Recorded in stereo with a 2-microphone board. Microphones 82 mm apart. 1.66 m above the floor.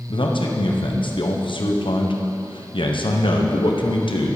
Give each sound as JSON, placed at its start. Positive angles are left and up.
{"t": 0.1, "sound": "a man speaking", "side_deg": 70, "distance_m": 1.2}